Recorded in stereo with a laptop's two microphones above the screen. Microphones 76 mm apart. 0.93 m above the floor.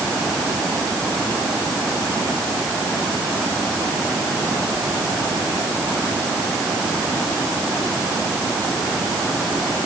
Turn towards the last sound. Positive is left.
No sound to turn to.